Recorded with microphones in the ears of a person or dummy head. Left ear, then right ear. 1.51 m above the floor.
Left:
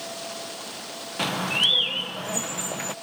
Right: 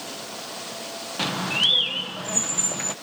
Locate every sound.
1.2 s a bird: 5° left (ahead or behind)